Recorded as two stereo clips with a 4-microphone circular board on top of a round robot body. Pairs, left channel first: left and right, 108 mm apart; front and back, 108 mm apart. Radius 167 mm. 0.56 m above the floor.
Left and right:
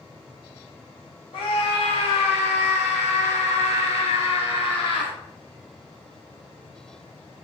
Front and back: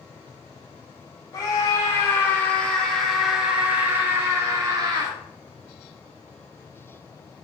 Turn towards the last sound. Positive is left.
turn(degrees=130)